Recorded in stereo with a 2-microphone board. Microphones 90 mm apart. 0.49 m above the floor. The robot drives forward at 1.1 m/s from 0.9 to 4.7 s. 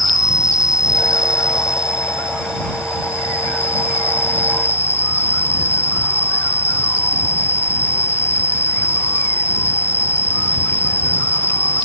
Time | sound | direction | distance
0.0 | an insect | 40° left (ahead or behind) | ?